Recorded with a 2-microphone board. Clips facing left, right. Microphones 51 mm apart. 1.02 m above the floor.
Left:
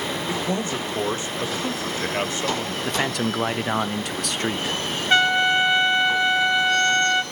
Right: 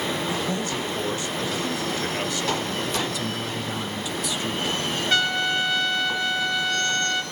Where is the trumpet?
25° left (ahead or behind), 0.9 m.